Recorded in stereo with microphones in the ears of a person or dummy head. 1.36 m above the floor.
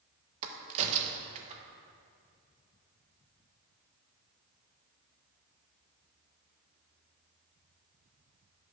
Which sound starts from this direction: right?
A crack, at 0.4 s.